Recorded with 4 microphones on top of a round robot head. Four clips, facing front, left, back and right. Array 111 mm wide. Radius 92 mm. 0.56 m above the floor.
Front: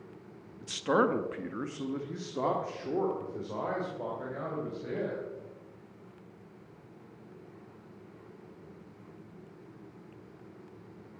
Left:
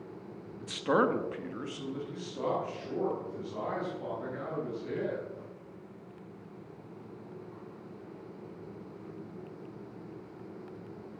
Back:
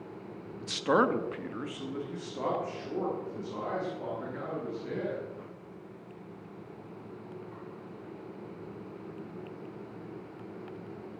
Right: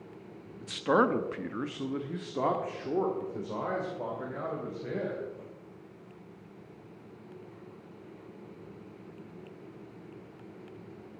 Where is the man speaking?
160° left, 1.1 m; by 5.2 s 55° right, 4 m.